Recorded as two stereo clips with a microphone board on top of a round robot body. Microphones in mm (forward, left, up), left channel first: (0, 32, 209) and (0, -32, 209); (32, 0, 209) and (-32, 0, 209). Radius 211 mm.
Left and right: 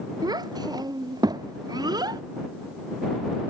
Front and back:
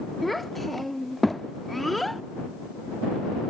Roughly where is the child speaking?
Right.